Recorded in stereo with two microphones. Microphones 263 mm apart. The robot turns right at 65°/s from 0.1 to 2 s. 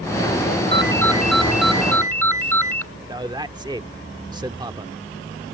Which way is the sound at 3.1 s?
15° right (ahead or behind).